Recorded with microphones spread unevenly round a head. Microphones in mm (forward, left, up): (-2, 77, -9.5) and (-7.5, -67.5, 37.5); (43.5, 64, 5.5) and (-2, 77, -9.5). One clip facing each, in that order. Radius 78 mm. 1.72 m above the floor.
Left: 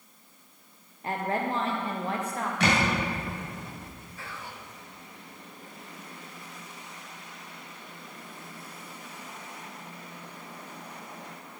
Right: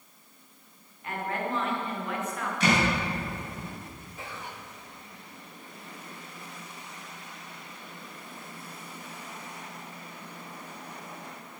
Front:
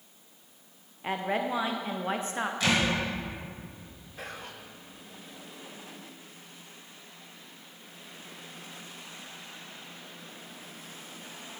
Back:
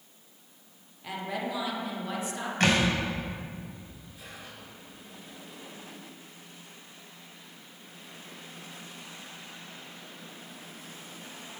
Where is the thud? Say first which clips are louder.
Right 1 dB, back 3 dB; 125° left, 2 m.